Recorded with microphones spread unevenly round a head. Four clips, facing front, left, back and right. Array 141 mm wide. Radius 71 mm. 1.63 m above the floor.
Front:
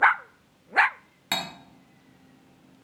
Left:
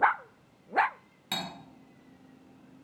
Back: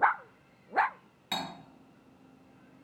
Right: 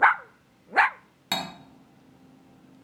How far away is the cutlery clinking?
About 1.0 m.